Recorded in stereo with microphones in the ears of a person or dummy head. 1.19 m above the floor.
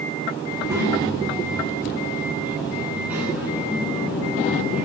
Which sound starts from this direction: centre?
A child speaking, at 0.5 s.